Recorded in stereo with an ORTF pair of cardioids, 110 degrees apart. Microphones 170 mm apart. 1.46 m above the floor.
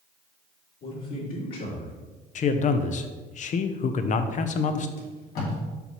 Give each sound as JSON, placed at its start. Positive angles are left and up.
{"t": 0.8, "sound": "a man speaking", "azimuth_deg": 55, "distance_m": 3.0}
{"t": 2.4, "sound": "a man speaking", "azimuth_deg": 45, "distance_m": 0.7}
{"t": 5.0, "sound": "tape being pulled", "azimuth_deg": 65, "distance_m": 2.5}